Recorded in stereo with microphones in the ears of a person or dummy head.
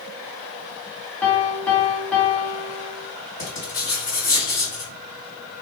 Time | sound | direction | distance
1.2 | a piano | 5° left (ahead or behind) | 0.7 m
3.4 | writing | 30° left (ahead or behind) | 2.5 m